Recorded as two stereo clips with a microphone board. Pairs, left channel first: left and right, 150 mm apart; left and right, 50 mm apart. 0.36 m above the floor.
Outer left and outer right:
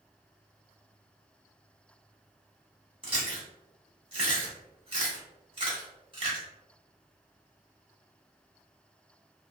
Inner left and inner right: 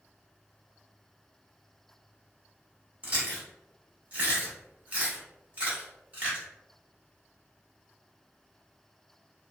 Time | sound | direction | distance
3.0 | chewing | 35° right (ahead or behind) | 1.1 m